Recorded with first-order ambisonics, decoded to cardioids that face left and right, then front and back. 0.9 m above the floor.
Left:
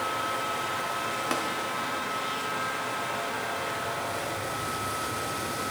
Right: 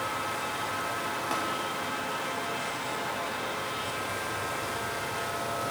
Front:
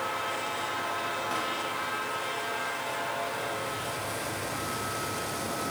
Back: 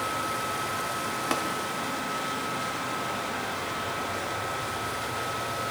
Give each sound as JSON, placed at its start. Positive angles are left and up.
{"t": 1.3, "sound": "tapping", "azimuth_deg": 150, "distance_m": 0.8}